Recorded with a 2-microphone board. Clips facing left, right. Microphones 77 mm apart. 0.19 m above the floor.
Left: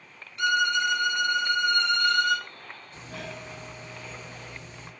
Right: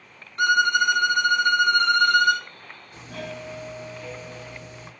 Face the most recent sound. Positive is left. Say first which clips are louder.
# right 5 dB
turn(degrees=-15)  # may be behind; listen again after turning